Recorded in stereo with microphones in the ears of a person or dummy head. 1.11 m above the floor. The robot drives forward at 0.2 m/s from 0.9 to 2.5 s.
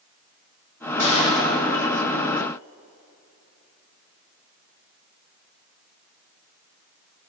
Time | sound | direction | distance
1.0 | a gunshot | 75° right (ahead or behind) | 4.5 m